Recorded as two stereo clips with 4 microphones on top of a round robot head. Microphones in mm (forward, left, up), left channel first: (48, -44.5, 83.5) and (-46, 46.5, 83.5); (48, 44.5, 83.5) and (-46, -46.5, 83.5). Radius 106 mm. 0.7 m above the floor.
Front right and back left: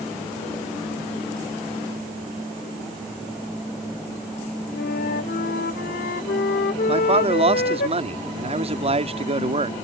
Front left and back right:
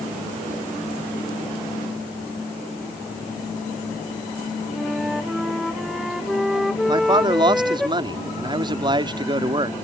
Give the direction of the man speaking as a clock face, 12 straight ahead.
6 o'clock.